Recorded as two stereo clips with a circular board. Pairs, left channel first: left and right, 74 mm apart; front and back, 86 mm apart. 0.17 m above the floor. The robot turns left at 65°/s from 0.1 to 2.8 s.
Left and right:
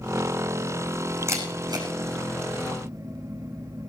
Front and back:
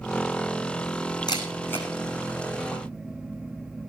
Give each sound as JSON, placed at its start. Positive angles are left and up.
{"t": 1.3, "sound": "a camera shutter", "azimuth_deg": -35, "distance_m": 5.0}